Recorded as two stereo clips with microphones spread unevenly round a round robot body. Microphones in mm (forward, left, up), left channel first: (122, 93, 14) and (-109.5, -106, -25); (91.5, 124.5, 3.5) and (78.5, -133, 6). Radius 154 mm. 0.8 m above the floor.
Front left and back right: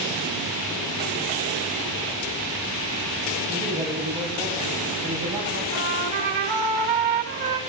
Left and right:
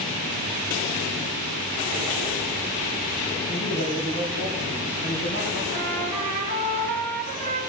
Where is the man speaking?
140° left, 4.5 m; by 5.6 s 150° left, 6 m.